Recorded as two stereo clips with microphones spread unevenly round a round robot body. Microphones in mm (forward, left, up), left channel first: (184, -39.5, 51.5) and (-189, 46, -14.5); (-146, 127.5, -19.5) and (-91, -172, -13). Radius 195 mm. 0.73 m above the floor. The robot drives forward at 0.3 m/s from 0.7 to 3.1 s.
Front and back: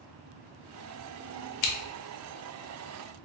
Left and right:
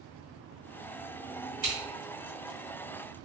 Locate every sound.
1.6 s scissors: 5° right, 0.7 m